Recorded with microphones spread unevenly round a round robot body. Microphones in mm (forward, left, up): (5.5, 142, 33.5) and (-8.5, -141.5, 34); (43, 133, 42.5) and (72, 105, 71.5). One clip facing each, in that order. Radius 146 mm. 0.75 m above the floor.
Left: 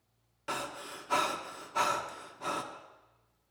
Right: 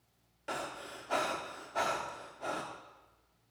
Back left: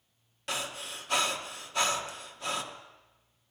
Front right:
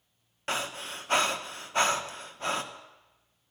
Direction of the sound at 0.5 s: 15° left.